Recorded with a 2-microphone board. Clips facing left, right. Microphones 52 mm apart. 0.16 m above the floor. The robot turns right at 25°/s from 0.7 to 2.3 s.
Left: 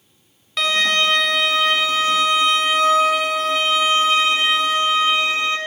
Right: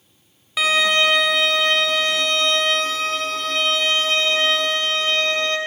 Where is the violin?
10° right (ahead or behind), 1.0 m; by 5.6 s 10° left (ahead or behind), 1.0 m.